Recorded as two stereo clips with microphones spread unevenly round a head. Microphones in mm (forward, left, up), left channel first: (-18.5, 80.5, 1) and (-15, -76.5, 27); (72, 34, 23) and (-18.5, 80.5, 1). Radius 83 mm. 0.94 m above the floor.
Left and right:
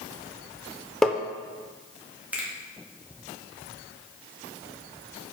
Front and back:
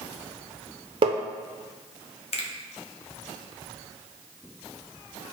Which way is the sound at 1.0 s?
170° right.